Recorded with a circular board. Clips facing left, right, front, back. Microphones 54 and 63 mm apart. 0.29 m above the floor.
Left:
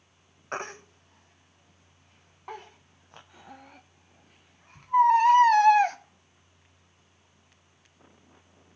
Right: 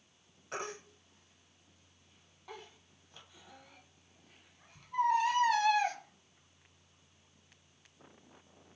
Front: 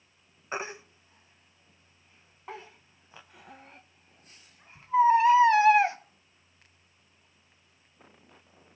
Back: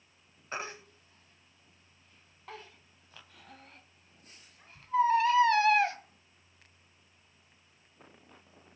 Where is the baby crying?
65° left, 0.8 m.